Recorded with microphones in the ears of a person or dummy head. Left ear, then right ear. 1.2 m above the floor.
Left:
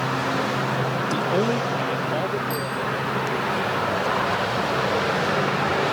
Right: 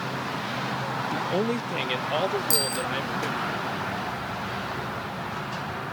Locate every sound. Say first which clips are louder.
1.1 s a man speaking: left 4 dB; 20° left (ahead or behind); by 3.5 s 80° right
2.5 s a bicycle bell: even; 75° right (ahead or behind)